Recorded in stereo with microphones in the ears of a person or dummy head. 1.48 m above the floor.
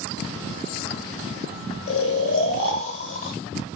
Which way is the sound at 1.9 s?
35° left (ahead or behind).